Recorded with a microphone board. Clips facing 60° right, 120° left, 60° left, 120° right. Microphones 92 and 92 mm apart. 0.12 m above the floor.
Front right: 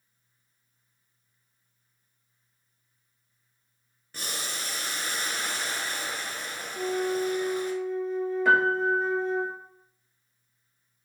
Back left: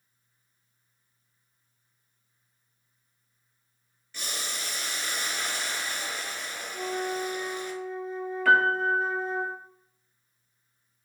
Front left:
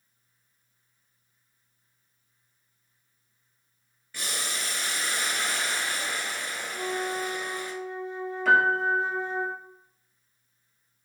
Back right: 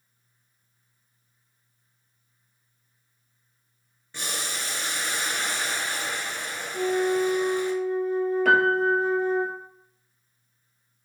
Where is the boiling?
70° right, 0.7 m.